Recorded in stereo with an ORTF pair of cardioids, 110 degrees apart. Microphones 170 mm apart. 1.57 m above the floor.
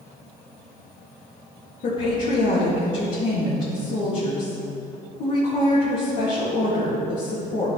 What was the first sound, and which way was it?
A woman speaking, 50° left.